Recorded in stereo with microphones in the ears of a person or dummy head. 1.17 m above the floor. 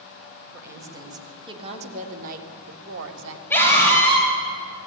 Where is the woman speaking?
10° right (ahead or behind), 4 m; by 3.4 s 75° right (ahead or behind), 3 m.